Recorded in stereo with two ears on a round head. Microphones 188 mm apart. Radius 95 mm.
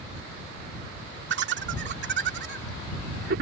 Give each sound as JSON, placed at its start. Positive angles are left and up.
{"t": 1.3, "sound": "laughter", "side_deg": -60}